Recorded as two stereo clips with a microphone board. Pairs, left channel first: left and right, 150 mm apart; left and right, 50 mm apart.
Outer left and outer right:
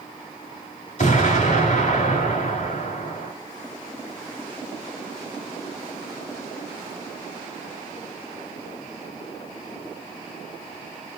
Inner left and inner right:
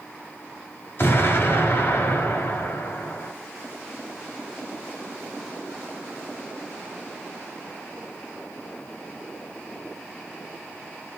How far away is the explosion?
About 1.4 m.